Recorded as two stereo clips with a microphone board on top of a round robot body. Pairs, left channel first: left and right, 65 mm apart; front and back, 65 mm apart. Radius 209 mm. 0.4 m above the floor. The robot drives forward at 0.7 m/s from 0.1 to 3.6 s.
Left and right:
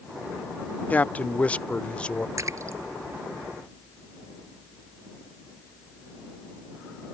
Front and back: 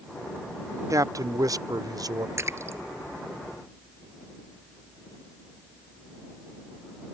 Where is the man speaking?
155° left; by 2.3 s 165° left.